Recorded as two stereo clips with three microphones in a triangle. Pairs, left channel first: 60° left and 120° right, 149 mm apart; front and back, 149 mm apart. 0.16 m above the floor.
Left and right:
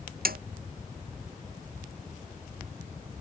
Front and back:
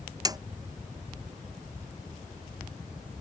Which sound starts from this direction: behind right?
A snare drum, at 0.2 s.